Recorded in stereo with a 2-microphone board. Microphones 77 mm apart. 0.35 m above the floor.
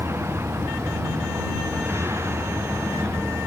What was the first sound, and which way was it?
A vehicle, 35° right (ahead or behind).